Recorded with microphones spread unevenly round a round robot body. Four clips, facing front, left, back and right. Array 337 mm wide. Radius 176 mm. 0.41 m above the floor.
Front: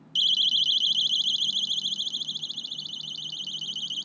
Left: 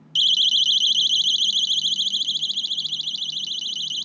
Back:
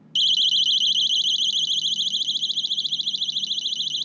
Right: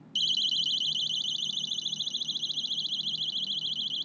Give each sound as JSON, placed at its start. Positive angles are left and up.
{"t": 0.1, "sound": "a siren", "azimuth_deg": 155}